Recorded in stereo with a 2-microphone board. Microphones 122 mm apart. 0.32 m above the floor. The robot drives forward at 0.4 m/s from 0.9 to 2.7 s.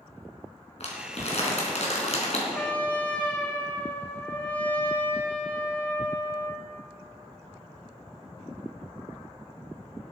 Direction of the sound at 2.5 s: 15° left (ahead or behind).